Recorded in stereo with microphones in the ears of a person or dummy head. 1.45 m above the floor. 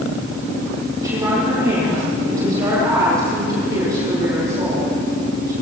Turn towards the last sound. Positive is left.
turn(degrees=-15)  # may be behind; listen again after turning